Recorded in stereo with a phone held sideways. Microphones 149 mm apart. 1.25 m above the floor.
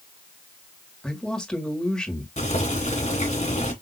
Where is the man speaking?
5° left (ahead or behind), 1.6 m.